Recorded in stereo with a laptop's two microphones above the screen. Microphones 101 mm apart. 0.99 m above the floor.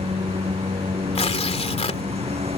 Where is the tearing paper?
80° left.